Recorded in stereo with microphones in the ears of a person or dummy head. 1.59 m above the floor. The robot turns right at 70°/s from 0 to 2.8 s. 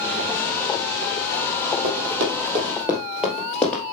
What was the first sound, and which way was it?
Running footsteps, 55° right (ahead or behind).